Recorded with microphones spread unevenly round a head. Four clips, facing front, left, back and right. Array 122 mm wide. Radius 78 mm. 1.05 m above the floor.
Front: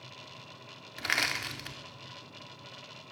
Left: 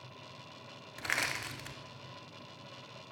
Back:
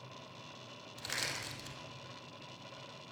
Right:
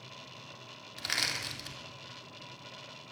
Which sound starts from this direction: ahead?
Crushing, at 1.0 s.